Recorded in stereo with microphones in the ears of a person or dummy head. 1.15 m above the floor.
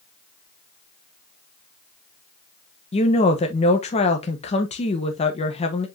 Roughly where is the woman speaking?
Left.